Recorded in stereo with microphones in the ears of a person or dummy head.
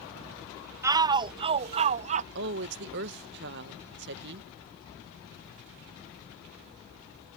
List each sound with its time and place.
0.8 s a shout: 20° right (ahead or behind); by 2.2 s 40° right (ahead or behind)
2.4 s a woman speaking: 65° right (ahead or behind)